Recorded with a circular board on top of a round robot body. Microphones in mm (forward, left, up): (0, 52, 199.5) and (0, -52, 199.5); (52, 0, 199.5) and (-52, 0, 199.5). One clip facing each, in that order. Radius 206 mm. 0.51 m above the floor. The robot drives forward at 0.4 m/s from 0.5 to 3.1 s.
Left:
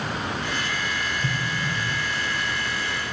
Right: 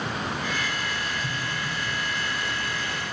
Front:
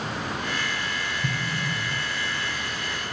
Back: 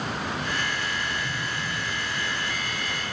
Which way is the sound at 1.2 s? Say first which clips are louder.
Left 3 dB, front 2 dB; 25° left.